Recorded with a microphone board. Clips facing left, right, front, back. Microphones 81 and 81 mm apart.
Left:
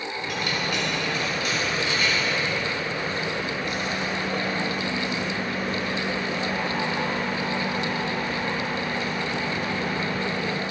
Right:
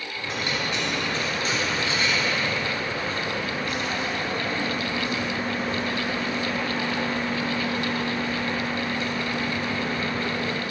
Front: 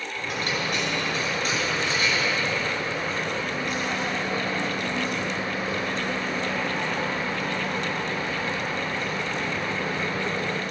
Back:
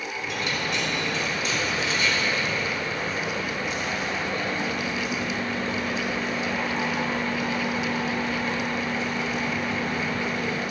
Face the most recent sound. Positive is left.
turn(degrees=-35)